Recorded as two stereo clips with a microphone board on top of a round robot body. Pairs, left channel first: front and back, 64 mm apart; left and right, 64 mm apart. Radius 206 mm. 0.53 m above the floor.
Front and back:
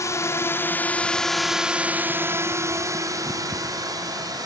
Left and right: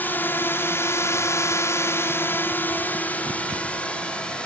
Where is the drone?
35° left; by 4.5 s 165° left.